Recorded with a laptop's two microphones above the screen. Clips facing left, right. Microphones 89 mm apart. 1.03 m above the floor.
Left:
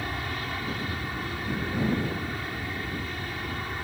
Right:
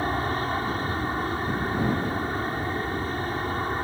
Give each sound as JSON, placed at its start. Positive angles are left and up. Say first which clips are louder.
{"t": 0.0, "sound": "an aircraft", "louder": "right 7 dB", "side_deg": -35}